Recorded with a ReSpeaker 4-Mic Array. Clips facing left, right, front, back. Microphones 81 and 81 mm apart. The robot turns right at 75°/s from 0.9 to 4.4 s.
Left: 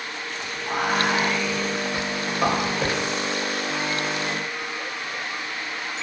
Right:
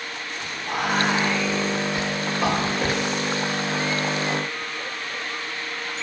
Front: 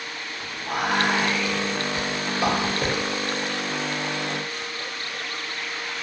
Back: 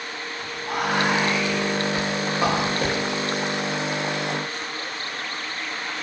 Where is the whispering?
45° left, 0.7 m; by 3.0 s 160° right, 0.7 m.